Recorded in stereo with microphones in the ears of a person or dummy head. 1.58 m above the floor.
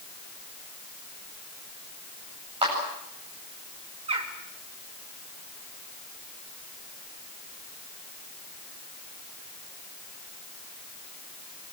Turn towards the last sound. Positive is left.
turn(degrees=-35)  # may be behind; listen again after turning